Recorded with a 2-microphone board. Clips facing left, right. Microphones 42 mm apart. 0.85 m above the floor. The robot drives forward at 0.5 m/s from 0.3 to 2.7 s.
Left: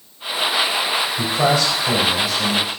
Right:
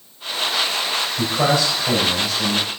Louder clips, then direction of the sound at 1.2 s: Even; centre (ahead or behind).